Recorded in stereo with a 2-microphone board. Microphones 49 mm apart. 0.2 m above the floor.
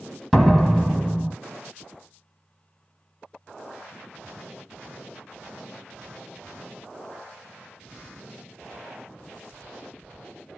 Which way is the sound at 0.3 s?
Centre (ahead or behind).